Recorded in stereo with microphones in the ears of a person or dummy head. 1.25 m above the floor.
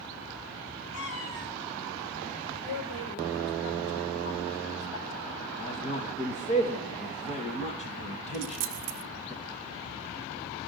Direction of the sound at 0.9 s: 80° left.